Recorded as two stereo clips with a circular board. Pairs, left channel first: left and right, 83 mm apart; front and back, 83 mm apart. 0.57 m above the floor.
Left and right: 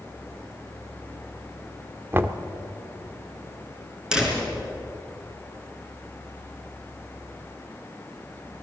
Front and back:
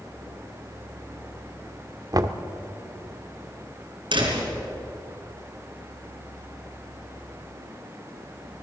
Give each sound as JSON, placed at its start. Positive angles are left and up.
{"t": 2.1, "sound": "knocking", "azimuth_deg": -150, "distance_m": 1.0}
{"t": 4.1, "sound": "a door slam", "azimuth_deg": -170, "distance_m": 4.5}